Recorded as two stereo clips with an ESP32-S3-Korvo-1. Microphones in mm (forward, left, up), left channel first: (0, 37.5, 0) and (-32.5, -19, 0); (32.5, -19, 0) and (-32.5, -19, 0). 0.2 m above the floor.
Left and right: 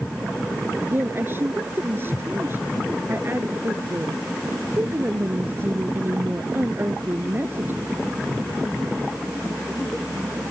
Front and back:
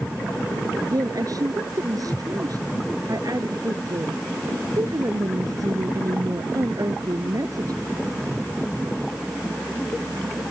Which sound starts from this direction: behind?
A woman speaking, at 0.8 s.